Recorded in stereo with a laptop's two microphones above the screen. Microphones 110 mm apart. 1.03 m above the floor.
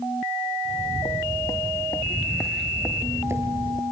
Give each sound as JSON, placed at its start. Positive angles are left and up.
{"t": 0.7, "sound": "footsteps", "side_deg": 50, "distance_m": 1.5}